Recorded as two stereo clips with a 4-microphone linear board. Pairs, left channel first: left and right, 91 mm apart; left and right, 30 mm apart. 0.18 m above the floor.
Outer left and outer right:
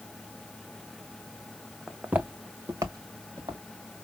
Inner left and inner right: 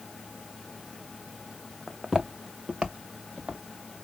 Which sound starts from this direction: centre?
Footsteps, at 1.9 s.